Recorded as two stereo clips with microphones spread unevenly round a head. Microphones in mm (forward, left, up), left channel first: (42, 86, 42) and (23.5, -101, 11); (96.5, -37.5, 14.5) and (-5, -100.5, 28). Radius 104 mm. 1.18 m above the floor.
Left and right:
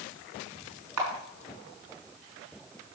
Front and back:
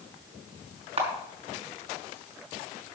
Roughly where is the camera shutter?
Right.